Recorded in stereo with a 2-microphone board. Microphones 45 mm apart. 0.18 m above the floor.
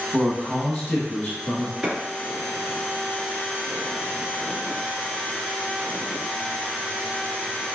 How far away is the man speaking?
About 1.2 m.